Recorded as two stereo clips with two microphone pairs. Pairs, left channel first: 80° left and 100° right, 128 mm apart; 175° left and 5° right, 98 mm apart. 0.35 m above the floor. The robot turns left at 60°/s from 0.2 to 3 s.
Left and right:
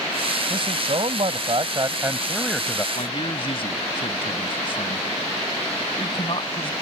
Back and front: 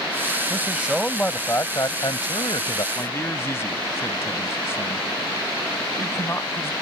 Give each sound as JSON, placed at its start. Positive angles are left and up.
{"t": 0.5, "sound": "a man speaking", "azimuth_deg": -65}
{"t": 3.0, "sound": "a man speaking", "azimuth_deg": 120}